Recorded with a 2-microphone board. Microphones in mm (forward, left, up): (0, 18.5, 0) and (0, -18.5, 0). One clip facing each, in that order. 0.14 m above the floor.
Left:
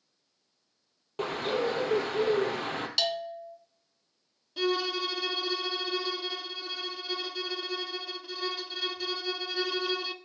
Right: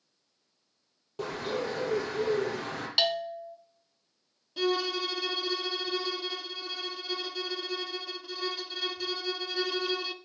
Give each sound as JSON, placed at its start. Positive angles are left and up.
{"t": 1.2, "sound": "a bird", "side_deg": 45, "distance_m": 2.5}
{"t": 3.0, "sound": "a bell", "side_deg": -25, "distance_m": 1.2}
{"t": 4.6, "sound": "a violin", "side_deg": 5, "distance_m": 0.7}